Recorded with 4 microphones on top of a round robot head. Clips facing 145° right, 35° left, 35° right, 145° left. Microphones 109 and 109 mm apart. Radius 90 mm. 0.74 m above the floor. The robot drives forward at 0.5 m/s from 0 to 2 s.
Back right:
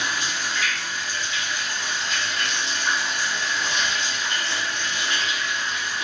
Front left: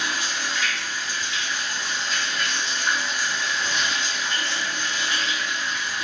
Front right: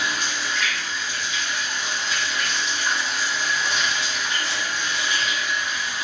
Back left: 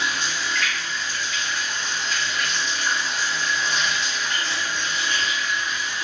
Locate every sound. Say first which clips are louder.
0.0 s running water: even, even; 85° right, 1.8 m; by 6.0 s 115° right, 2 m